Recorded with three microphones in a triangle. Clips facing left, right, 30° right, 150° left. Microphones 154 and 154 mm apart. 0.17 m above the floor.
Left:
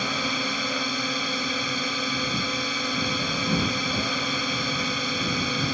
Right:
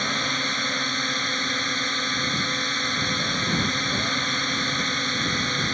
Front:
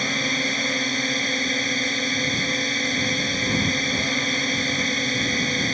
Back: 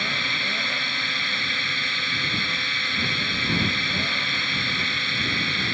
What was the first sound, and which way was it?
A drone, 10° left.